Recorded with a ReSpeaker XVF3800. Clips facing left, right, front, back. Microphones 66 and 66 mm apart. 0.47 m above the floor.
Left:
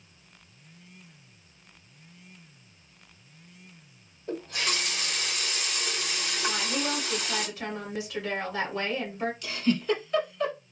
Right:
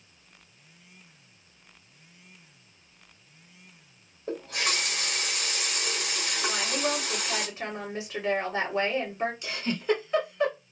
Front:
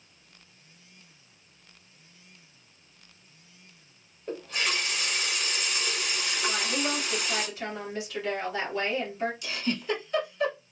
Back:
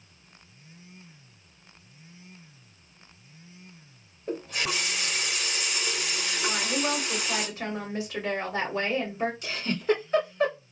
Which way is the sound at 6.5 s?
130° right.